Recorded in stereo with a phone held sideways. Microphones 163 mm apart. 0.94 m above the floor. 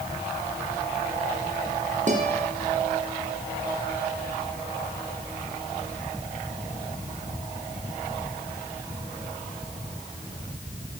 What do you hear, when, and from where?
2.1 s a guitar: 50° right (ahead or behind), 9.5 m